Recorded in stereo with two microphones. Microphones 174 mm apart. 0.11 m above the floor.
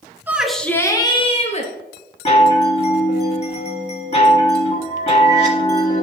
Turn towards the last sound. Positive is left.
turn(degrees=35)  # may be behind; listen again after turning